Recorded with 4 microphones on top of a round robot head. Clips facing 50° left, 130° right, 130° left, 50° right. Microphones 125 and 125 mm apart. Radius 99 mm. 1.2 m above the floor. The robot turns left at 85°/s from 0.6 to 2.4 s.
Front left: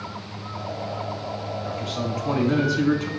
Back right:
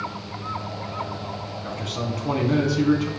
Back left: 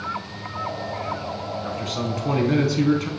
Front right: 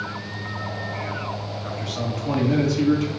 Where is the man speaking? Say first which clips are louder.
Back right 1 dB, even; 145° right, 1.1 m; by 3.1 s 150° left, 1.1 m.